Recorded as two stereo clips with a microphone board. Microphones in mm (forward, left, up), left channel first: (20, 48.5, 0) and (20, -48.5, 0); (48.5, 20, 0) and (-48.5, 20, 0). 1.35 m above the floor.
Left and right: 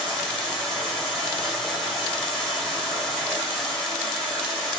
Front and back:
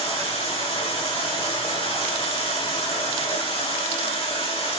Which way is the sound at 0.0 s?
5° left.